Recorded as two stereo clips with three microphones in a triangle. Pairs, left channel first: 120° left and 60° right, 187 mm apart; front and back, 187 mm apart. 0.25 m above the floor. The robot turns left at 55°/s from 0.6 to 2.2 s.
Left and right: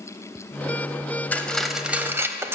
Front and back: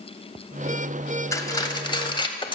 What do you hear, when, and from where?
1.3 s cutlery clinking: 50° left, 0.7 m; by 2.5 s straight ahead, 0.7 m